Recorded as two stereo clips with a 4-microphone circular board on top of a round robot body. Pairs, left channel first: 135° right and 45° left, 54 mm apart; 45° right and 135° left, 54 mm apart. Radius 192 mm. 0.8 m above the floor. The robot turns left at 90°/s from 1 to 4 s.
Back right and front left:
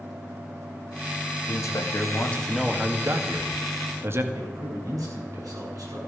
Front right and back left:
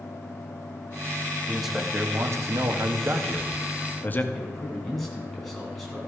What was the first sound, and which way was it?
A man speaking, 125° right.